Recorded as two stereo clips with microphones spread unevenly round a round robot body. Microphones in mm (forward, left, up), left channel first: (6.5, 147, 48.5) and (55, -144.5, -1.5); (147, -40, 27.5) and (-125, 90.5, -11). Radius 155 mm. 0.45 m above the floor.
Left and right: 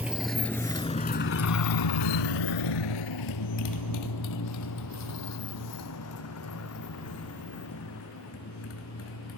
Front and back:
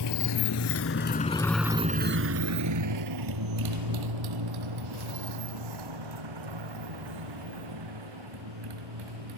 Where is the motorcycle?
5° left; by 9.4 s 150° left.